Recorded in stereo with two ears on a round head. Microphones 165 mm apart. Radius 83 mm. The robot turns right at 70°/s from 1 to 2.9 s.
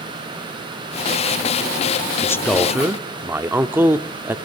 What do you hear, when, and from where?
2.2 s a man speaking: 150° left, 0.8 m; by 4.4 s 160° right, 0.8 m